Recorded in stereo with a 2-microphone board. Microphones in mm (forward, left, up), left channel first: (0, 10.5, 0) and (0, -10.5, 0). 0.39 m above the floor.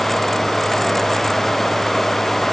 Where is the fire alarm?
No fire alarm in this recording.